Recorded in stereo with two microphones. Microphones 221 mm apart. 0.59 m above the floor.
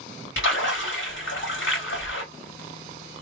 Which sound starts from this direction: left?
A splash, at 0.4 s.